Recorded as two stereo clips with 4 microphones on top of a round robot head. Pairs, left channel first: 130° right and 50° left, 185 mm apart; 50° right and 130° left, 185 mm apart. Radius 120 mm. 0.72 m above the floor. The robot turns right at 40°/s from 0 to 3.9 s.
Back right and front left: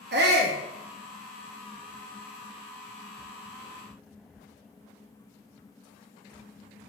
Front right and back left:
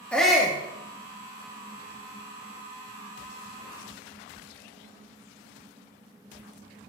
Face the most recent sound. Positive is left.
turn(degrees=-175)